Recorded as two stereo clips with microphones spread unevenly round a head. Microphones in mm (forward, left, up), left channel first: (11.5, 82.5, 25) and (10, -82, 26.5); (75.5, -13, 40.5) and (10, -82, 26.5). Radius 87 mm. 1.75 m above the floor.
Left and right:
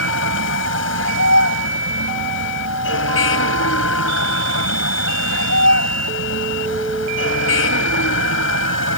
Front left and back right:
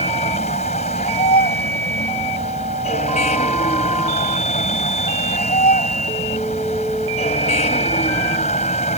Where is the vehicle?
85° left.